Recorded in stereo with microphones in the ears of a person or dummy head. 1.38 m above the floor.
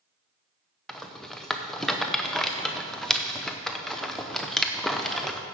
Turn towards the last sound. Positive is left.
turn(degrees=5)  # may be behind; listen again after turning